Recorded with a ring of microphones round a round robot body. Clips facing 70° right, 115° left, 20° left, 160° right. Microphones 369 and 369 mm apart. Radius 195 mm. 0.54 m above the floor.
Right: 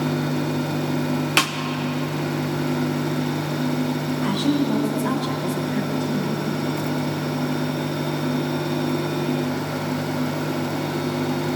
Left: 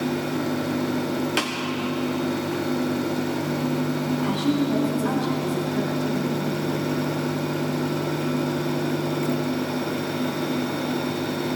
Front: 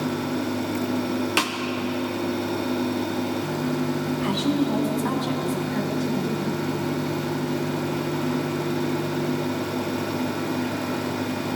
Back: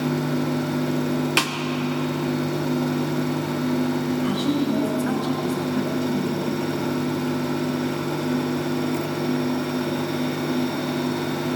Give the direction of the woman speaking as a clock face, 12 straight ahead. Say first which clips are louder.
Right 3 dB, front 2 dB; 11 o'clock.